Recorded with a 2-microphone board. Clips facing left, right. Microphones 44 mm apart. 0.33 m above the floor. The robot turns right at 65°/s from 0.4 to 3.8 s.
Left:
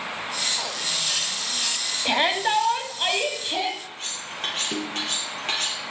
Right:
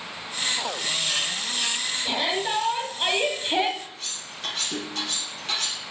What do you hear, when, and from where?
2.0 s a shout: 115° left, 2.5 m; by 3.7 s 140° right, 2.5 m
3.8 s cutlery clinking: 45° left (ahead or behind), 5 m